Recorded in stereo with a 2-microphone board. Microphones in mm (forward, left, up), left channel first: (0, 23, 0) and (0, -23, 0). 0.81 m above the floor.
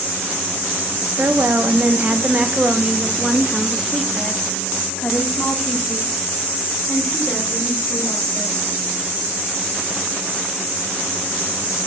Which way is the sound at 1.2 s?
50° right (ahead or behind).